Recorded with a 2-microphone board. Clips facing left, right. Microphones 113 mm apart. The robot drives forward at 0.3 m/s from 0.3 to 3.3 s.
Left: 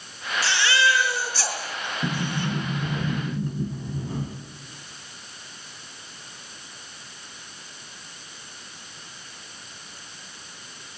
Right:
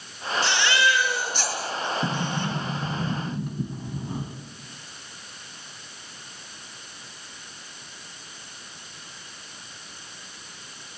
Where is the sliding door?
15° right (ahead or behind), 4 m.